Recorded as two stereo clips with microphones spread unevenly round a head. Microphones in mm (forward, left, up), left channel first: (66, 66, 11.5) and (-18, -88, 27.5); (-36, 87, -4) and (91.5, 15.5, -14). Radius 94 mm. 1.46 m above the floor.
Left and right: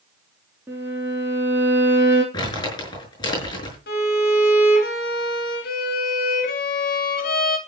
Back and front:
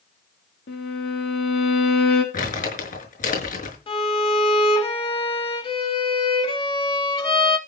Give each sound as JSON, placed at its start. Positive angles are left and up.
{"t": 0.7, "sound": "a violin", "azimuth_deg": 165, "distance_m": 4.0}
{"t": 2.3, "sound": "crumpling", "azimuth_deg": 130, "distance_m": 6.0}
{"t": 3.9, "sound": "a violin", "azimuth_deg": 100, "distance_m": 3.5}